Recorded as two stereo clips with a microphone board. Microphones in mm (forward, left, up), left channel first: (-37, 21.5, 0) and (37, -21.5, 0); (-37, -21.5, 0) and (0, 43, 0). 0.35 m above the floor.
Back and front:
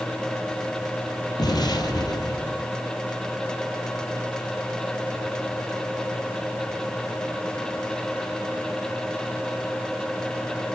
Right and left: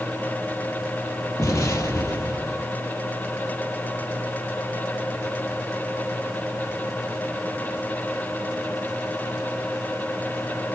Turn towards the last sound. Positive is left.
turn(degrees=-170)